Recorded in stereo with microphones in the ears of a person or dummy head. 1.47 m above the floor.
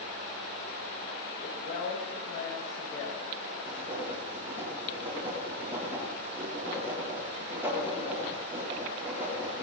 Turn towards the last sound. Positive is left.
turn(degrees=-15)  # may be behind; listen again after turning